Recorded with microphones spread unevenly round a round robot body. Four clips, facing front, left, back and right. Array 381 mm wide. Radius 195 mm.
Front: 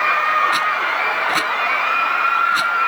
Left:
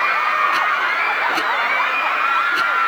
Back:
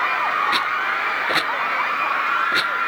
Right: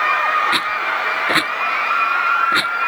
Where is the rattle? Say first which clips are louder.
Left 2 dB, front 3 dB; 100° right.